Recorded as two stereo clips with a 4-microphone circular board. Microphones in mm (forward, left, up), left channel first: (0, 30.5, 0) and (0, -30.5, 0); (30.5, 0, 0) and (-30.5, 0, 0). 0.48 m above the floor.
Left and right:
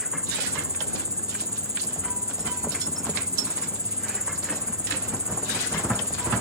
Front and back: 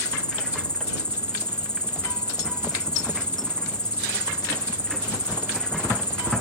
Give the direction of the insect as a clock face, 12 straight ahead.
3 o'clock.